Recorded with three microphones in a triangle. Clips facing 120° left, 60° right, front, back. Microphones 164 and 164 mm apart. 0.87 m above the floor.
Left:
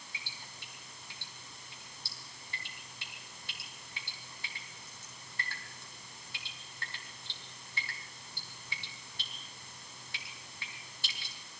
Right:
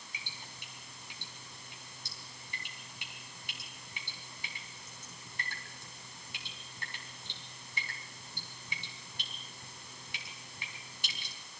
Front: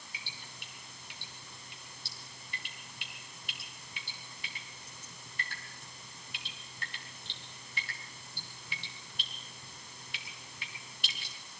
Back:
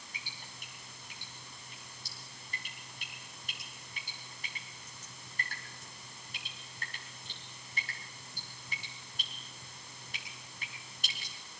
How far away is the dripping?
About 4 m.